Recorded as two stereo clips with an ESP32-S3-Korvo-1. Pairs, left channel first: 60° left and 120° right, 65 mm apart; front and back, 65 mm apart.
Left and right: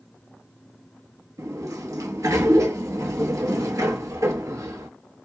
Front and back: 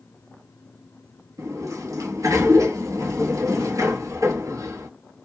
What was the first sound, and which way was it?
A sliding door, 155° right.